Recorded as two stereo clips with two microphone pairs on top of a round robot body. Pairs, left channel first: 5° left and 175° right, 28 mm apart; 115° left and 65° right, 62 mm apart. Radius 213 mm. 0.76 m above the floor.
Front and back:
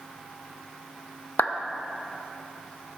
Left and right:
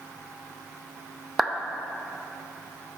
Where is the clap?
20° left, 0.8 m.